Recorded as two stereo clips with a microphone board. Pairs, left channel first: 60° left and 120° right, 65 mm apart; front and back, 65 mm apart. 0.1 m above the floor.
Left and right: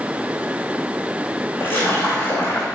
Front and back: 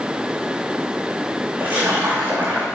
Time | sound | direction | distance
1.6 | a splash | 120° left | 3 m